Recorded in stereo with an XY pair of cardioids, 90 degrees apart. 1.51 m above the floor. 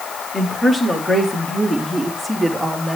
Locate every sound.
0.3 s a woman speaking: 30° left, 4 m; by 3.0 s 15° right, 3.5 m